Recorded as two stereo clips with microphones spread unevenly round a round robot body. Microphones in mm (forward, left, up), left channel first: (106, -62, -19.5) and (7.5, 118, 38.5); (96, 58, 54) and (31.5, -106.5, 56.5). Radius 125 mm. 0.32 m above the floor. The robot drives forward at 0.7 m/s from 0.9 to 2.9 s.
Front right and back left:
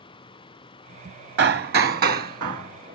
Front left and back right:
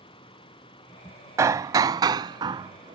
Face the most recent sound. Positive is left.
turn(degrees=175)